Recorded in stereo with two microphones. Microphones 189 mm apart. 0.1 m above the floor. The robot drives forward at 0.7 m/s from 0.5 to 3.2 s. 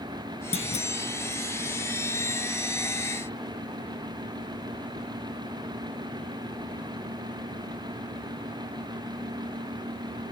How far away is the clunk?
About 0.7 m.